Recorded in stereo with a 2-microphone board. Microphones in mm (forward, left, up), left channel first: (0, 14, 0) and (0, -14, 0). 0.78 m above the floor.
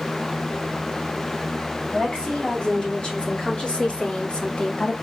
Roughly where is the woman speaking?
Left.